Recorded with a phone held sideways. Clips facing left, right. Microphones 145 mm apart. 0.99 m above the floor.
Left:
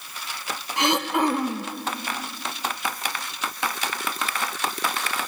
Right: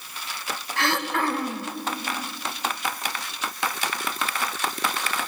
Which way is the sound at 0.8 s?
20° left (ahead or behind).